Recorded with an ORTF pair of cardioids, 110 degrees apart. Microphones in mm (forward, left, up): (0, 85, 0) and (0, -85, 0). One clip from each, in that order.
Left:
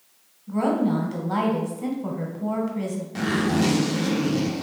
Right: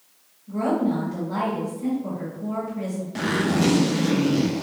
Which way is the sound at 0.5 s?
55° left.